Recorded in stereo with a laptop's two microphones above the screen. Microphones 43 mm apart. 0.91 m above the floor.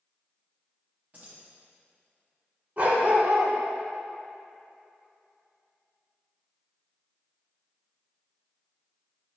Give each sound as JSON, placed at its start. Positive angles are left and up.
{"t": 1.1, "sound": "keys jangling", "side_deg": -40, "distance_m": 1.1}
{"t": 2.8, "sound": "a dog barking", "side_deg": -45, "distance_m": 1.2}